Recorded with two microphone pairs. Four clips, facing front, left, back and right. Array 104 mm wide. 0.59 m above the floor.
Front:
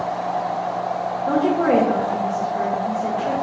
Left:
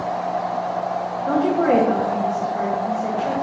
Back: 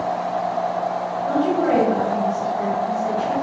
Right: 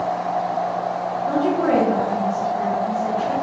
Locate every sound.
1.3 s a woman speaking: 45° left, 1.5 m